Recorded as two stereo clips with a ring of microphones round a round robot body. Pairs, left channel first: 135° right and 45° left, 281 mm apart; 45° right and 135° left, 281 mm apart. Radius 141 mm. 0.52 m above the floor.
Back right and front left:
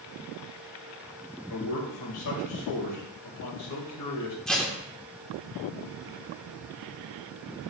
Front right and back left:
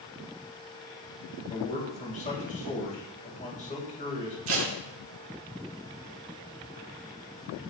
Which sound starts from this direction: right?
A man speaking, at 1.5 s.